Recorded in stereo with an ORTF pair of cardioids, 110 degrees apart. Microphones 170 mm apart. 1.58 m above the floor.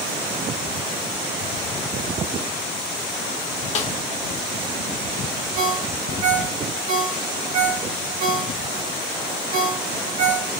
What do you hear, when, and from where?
3.8 s a snare drum: 40° left, 0.6 m
5.5 s a ringtone: 65° right, 1.7 m